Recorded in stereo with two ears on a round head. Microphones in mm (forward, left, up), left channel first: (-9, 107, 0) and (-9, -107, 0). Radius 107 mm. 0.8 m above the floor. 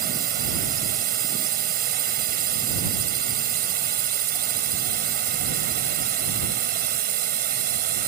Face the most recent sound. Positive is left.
turn(degrees=-40)  # may be behind; listen again after turning